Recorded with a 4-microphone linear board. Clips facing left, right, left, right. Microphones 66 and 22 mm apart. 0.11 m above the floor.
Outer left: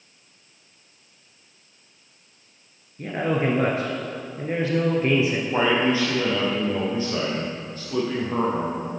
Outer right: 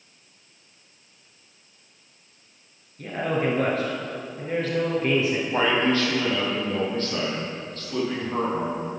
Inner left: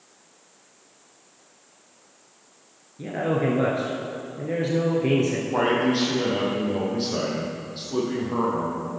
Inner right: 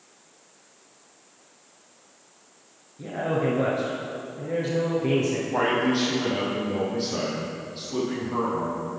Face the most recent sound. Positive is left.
turn(degrees=10)  # may be behind; listen again after turning